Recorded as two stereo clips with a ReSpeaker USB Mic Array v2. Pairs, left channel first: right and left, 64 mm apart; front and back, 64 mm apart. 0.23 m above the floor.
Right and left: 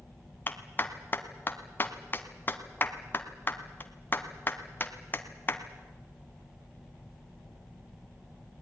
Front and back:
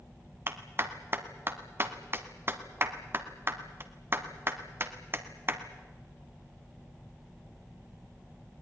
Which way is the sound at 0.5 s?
140° right.